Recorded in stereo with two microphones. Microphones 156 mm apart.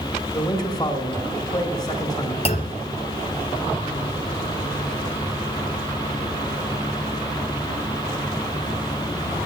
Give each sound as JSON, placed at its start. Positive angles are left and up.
{"t": 0.3, "sound": "a man speaking", "side_deg": 25, "distance_m": 1.3}
{"t": 2.5, "sound": "a clunk", "side_deg": 45, "distance_m": 0.9}